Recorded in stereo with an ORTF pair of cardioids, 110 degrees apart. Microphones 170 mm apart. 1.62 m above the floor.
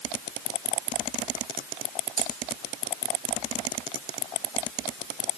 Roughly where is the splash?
No splash in this recording.